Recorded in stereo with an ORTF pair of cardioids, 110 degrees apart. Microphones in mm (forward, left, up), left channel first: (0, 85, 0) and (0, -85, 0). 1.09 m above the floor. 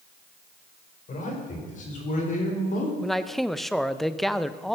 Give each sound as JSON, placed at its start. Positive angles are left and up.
{"t": 1.1, "sound": "a man speaking", "azimuth_deg": 45, "distance_m": 4.5}
{"t": 3.0, "sound": "a man speaking", "azimuth_deg": 0, "distance_m": 0.6}